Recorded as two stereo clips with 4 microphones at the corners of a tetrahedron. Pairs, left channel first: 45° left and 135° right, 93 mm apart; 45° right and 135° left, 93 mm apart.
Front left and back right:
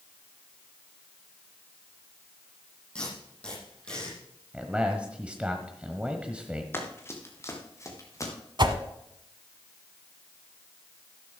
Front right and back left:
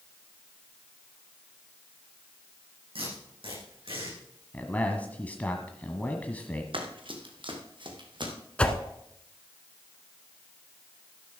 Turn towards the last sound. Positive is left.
turn(degrees=-120)